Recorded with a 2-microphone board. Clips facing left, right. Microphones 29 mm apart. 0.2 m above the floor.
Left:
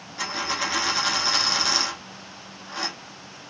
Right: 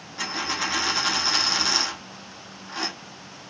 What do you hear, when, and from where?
0.2 s a dropped coin: centre (ahead or behind), 0.8 m